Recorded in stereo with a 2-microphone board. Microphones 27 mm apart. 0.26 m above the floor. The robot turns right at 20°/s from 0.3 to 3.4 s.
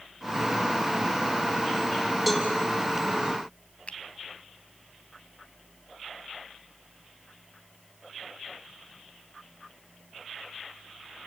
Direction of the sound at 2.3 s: 5° right (ahead or behind).